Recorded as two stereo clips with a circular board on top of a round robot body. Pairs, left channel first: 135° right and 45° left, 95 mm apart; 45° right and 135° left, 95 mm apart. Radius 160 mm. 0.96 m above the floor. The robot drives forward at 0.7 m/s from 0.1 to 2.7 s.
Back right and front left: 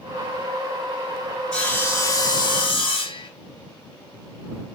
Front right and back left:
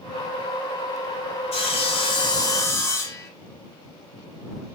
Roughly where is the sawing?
Ahead right.